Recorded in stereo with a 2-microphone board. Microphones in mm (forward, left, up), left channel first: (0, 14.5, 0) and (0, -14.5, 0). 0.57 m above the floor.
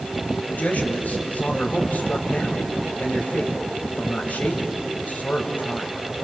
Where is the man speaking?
70° left (ahead or behind), 3.5 m.